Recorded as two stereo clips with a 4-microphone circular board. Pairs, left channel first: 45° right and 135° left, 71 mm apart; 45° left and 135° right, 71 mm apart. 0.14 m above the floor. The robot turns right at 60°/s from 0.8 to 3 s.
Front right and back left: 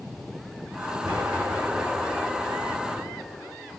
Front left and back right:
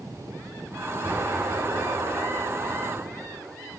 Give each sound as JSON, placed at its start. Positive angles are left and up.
{"t": 1.0, "sound": "an explosion", "azimuth_deg": 160, "distance_m": 3.5}